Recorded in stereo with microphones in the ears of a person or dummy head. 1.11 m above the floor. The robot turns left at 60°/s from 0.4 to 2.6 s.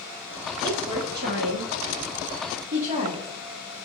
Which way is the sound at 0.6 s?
25° right (ahead or behind).